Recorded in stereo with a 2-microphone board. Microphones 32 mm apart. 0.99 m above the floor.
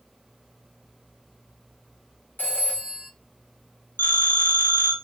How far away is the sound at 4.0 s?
About 1.0 m.